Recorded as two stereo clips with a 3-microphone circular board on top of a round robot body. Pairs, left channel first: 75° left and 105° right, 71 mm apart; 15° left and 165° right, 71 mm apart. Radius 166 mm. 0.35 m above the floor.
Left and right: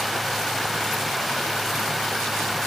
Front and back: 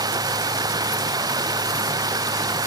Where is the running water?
165° left.